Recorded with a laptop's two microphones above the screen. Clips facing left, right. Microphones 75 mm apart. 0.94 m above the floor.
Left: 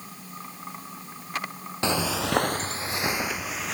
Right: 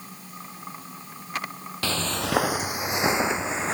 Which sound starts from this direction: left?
Footsteps, at 1.8 s.